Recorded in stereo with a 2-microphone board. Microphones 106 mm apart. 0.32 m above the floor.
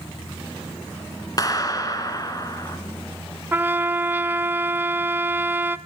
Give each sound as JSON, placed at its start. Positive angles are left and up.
{"t": 1.4, "sound": "a clap", "side_deg": 35, "distance_m": 2.5}
{"t": 3.5, "sound": "a trumpet", "side_deg": -20, "distance_m": 0.6}